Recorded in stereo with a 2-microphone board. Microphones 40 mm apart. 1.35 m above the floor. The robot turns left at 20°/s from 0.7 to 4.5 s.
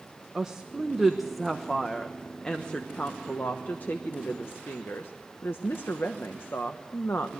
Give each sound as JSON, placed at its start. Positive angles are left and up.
{"t": 0.3, "sound": "a woman speaking", "side_deg": -15, "distance_m": 1.1}